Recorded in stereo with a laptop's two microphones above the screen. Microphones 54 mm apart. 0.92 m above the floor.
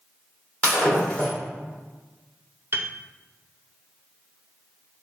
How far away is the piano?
About 0.5 m.